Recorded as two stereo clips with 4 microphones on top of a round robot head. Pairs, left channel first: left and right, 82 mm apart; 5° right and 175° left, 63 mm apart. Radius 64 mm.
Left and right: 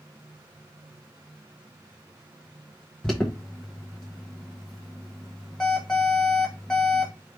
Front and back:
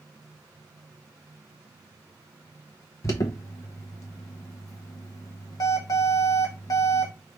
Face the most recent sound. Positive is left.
turn(degrees=5)